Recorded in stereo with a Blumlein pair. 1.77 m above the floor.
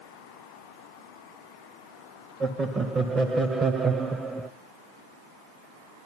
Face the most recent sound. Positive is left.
turn(degrees=-10)